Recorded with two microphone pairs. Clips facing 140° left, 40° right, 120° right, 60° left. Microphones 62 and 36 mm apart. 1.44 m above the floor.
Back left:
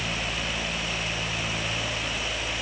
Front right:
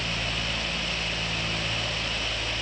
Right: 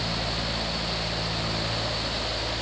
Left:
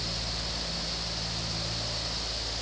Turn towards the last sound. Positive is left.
No sound to turn to.